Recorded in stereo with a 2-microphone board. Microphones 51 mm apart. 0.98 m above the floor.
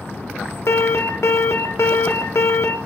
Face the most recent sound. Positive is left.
turn(degrees=60)  # may be behind; listen again after turning